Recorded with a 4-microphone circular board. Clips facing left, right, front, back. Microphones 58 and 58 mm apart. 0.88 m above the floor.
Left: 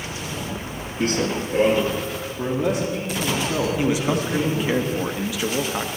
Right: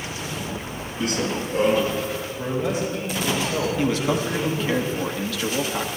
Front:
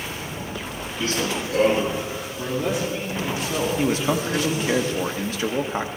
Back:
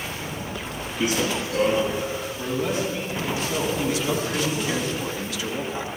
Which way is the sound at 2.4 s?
80° left.